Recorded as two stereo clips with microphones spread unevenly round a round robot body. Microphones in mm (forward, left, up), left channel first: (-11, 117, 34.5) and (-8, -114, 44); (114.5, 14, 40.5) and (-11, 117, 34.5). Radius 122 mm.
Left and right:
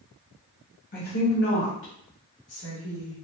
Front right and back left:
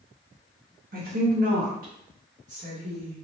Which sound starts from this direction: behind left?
A woman speaking, at 0.9 s.